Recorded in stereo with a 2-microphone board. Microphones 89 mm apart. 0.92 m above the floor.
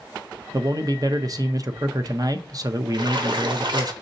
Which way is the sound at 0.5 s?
45° right (ahead or behind).